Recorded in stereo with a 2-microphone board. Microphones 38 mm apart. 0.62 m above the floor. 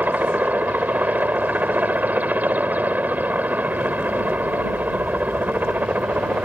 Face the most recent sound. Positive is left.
turn(degrees=-45)  # may be behind; listen again after turning